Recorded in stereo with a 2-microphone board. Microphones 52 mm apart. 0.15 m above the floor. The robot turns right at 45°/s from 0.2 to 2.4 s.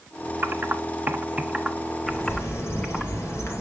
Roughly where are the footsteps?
No footsteps in this recording.